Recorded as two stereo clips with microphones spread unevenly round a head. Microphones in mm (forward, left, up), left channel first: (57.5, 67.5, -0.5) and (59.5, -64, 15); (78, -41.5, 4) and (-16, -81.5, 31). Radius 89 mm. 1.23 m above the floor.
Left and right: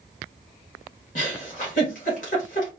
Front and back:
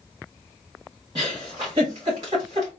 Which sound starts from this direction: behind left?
A giggle, at 1.1 s.